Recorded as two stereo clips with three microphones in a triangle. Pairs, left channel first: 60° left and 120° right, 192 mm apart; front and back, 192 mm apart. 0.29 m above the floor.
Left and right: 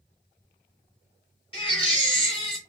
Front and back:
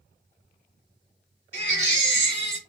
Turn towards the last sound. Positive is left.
turn(degrees=0)